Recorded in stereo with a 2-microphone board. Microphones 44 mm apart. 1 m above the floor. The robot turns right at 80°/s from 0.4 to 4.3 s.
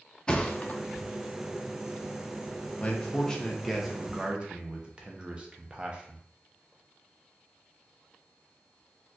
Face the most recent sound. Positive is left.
turn(degrees=-130)